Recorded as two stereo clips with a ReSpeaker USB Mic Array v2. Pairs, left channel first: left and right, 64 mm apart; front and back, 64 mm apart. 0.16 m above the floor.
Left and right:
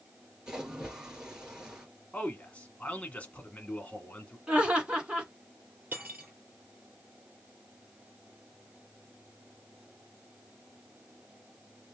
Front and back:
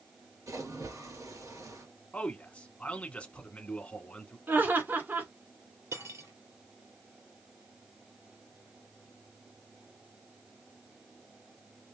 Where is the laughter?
150° right, 1.8 m.